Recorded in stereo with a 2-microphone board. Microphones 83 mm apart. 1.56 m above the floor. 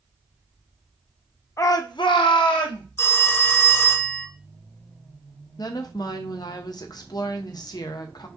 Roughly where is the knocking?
No knocking in this recording.